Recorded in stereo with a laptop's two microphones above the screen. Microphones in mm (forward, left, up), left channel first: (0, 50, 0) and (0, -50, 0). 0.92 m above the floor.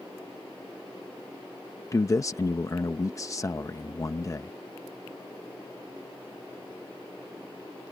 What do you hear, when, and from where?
1.9 s a man speaking: 30° left (ahead or behind)